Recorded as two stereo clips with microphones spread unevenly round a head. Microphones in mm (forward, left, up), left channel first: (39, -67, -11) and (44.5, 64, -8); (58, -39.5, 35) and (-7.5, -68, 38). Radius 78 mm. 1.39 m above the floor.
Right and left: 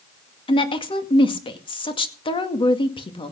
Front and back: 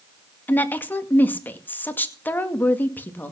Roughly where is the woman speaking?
Ahead right.